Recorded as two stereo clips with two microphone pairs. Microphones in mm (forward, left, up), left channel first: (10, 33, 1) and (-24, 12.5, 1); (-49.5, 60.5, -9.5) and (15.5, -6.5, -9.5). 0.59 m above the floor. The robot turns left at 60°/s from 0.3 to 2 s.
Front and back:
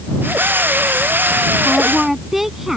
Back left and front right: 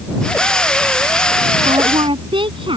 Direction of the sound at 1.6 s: 45° right.